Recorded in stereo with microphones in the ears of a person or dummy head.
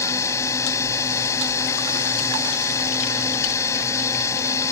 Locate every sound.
0.0 s a drone: 15° left (ahead or behind)